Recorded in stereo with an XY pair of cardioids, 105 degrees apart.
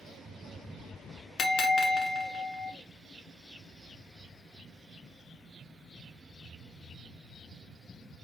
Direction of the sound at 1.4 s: 65° left.